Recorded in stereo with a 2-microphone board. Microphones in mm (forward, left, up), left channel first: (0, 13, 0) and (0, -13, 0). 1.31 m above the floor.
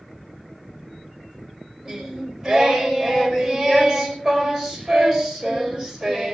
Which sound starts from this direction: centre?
Singing, at 1.9 s.